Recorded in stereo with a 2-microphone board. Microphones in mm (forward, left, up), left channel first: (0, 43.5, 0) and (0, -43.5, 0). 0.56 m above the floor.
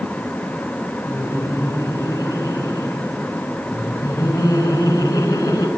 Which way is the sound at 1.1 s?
55° left (ahead or behind).